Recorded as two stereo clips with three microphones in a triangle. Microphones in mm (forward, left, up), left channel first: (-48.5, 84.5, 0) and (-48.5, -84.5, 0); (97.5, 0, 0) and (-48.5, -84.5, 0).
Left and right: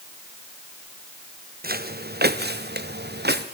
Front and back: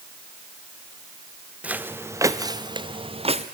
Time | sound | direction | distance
1.6 | footsteps | 70° right | 1.8 m